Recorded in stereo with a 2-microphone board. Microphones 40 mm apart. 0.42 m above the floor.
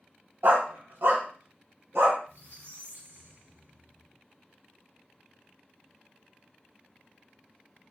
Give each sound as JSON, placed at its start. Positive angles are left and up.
{"t": 0.4, "sound": "a dog barking", "side_deg": -65, "distance_m": 0.7}
{"t": 2.3, "sound": "a squeak", "side_deg": -65, "distance_m": 1.2}